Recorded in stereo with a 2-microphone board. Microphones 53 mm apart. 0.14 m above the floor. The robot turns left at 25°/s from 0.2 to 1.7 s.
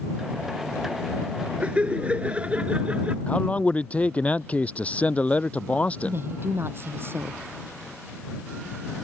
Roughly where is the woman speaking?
Right.